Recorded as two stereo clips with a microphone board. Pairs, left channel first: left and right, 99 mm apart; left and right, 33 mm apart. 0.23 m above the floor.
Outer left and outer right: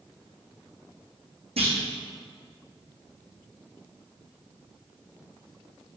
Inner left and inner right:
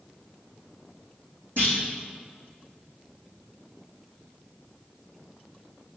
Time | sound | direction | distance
1.6 | a clunk | 80° right | 3 m